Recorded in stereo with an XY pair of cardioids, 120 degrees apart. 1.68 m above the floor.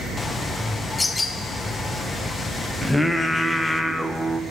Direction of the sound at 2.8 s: 5° left.